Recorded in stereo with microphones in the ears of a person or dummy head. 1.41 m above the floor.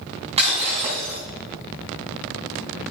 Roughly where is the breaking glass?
Right.